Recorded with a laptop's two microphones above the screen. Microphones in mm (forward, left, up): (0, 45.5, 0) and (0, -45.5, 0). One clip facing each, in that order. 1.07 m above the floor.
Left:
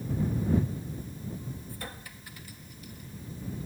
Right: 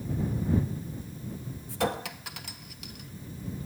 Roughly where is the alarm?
No alarm in this recording.